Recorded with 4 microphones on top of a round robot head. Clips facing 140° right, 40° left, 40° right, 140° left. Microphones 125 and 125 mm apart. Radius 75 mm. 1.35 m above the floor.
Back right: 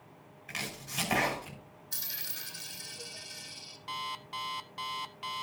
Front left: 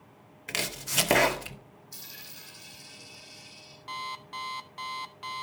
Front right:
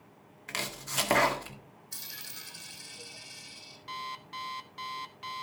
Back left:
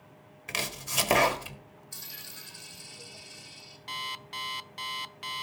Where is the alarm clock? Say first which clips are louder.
Front left 1 dB, even; 140° left, 0.6 m.